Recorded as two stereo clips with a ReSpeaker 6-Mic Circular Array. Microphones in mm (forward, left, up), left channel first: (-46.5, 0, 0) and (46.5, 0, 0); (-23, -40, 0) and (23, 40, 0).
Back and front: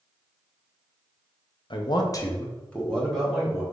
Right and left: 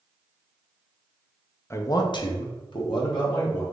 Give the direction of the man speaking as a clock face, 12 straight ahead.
6 o'clock.